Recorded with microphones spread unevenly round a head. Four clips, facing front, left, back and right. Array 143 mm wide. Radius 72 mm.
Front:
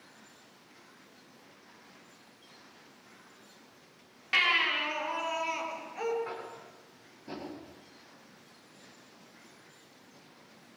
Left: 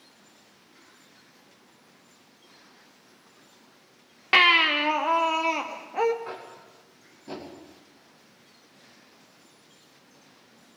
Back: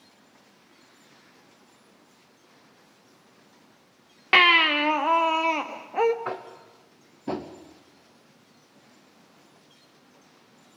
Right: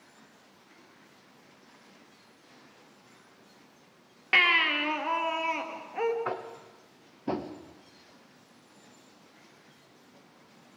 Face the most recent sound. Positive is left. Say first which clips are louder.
# right 4 dB, back 7 dB
turn(degrees=-140)